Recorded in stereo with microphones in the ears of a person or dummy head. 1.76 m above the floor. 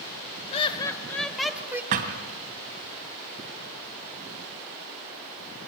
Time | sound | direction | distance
0.5 | laughter | 30° left (ahead or behind) | 1.9 m
1.9 | a thud | 35° right (ahead or behind) | 2 m